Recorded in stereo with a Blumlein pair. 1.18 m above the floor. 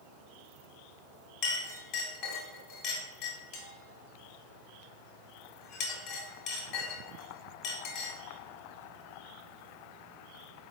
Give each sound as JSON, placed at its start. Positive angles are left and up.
{"t": 1.4, "sound": "a clink", "azimuth_deg": 45, "distance_m": 1.4}